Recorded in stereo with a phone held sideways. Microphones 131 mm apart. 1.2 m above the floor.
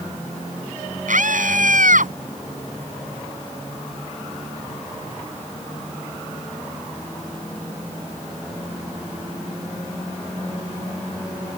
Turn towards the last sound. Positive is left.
turn(degrees=-85)